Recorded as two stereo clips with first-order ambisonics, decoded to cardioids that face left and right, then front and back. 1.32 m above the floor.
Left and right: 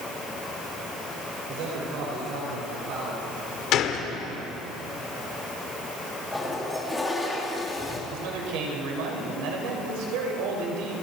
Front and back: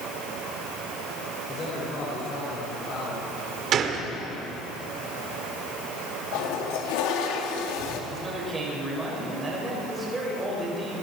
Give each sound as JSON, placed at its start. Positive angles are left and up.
{"t": 1.5, "sound": "a man speaking", "azimuth_deg": -65, "distance_m": 5.5}
{"t": 3.7, "sound": "a gunshot", "azimuth_deg": 130, "distance_m": 1.9}
{"t": 6.3, "sound": "a toilet flushing", "azimuth_deg": 5, "distance_m": 2.5}
{"t": 8.1, "sound": "a man speaking", "azimuth_deg": -100, "distance_m": 5.5}